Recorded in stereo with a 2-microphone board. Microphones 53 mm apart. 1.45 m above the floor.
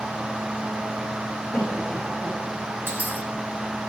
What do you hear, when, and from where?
1.5 s a cough: 20° left (ahead or behind), 3 m
2.9 s a dropped coin: 35° right (ahead or behind), 2.0 m